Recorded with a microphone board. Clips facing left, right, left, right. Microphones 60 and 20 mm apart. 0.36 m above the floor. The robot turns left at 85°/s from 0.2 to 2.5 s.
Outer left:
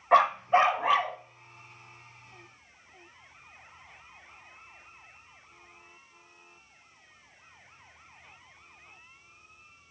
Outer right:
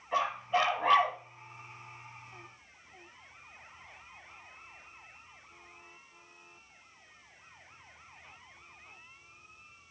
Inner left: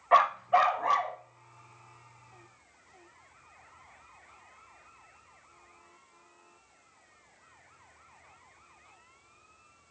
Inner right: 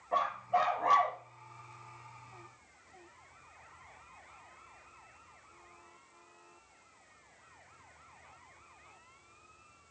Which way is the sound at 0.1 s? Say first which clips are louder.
Outer left 9 dB, inner left 8 dB; 65° left.